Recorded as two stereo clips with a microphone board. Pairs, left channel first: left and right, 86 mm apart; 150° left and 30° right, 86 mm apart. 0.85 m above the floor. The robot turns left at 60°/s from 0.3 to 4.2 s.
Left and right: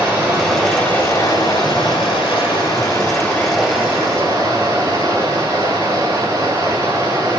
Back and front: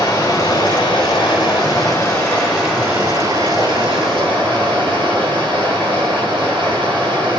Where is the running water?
170° right, 7.5 m; by 7.4 s 40° right, 7.5 m.